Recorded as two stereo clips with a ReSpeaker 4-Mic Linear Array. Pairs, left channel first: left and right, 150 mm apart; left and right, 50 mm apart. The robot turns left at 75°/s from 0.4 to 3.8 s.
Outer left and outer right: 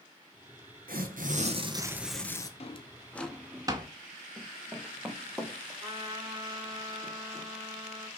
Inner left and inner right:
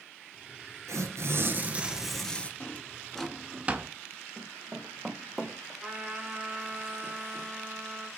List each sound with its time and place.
0.9 s tearing paper: 85° right, 0.7 m; by 2.5 s 150° left, 0.7 m
2.6 s a drawer: 45° left (ahead or behind), 0.6 m; by 3.9 s 30° right (ahead or behind), 0.6 m
4.4 s running footsteps: 25° right (ahead or behind), 1.4 m; by 5.7 s 15° left (ahead or behind), 1.1 m
5.8 s a trumpet: 20° right (ahead or behind), 1.0 m